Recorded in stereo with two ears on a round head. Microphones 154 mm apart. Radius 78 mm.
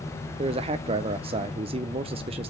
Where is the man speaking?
35° right (ahead or behind), 0.5 m.